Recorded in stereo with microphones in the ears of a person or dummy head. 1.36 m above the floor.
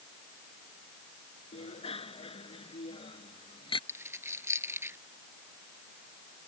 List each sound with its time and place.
1.5 s a bicycle bell: 35° left (ahead or behind); by 3.8 s 25° left (ahead or behind)
3.9 s a dropped coin: 15° right (ahead or behind)